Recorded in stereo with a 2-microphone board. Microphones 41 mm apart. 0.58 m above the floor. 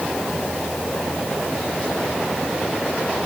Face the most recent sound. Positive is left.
No sound to turn to.